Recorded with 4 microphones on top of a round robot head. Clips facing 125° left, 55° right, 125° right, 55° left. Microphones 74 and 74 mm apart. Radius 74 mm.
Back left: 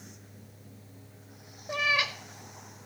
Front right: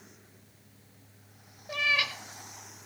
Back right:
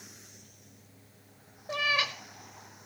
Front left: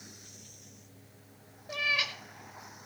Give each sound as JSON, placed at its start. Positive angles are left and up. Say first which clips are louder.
{"t": 1.7, "sound": "a cat meowing", "louder": "back left 1 dB, back right 3 dB", "azimuth_deg": -175, "distance_m": 0.5}